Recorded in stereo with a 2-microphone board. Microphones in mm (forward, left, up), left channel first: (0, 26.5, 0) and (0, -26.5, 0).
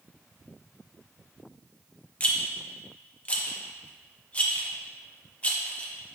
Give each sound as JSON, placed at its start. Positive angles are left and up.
{"t": 2.2, "sound": "a rattle", "side_deg": 25, "distance_m": 0.6}